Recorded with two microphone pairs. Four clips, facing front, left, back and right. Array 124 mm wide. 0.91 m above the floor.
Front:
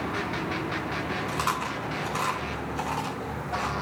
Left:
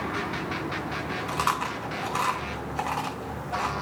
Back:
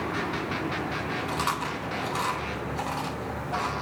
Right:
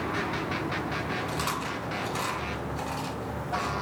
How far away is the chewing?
About 3 m.